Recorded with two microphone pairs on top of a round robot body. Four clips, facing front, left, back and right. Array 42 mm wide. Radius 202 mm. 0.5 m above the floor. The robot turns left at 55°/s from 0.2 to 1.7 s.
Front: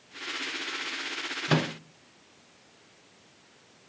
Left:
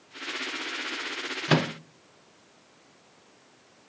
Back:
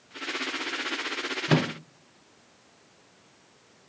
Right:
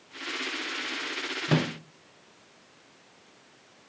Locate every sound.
1.5 s a microwave: 80° left, 0.6 m; by 1.7 s 65° left, 0.6 m